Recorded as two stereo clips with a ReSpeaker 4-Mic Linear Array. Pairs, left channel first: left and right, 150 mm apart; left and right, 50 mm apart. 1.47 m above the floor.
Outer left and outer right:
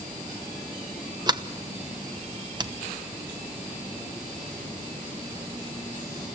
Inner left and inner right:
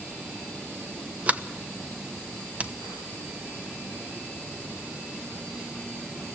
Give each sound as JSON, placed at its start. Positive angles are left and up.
{"t": 1.3, "sound": "a sliding door", "side_deg": -30, "distance_m": 0.9}